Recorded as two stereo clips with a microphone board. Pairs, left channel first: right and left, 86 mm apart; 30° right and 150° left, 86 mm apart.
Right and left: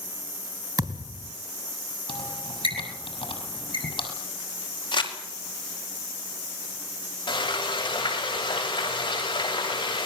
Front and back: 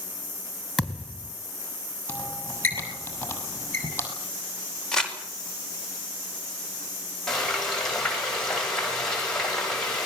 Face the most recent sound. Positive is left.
turn(degrees=-115)